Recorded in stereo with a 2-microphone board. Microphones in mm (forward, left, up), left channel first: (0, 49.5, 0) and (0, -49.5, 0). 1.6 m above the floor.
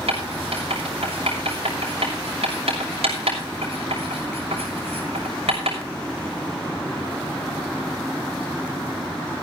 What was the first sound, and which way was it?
Writing, 80° right.